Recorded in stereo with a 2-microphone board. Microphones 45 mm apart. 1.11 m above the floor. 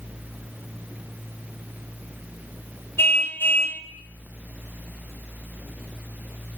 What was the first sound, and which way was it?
A car horn, 60° left (ahead or behind).